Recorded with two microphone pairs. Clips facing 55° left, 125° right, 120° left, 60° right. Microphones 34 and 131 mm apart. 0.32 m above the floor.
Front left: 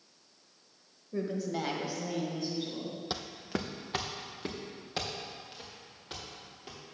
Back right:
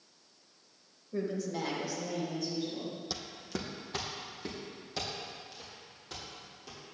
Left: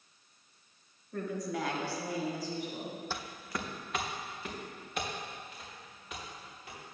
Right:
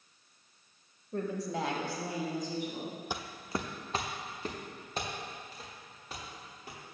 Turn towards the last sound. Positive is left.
turn(degrees=-5)